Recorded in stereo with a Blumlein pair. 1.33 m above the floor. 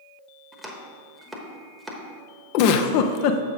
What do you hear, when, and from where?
0.5 s chopping: 5° right, 1.0 m
2.5 s a giggle: 45° left, 0.5 m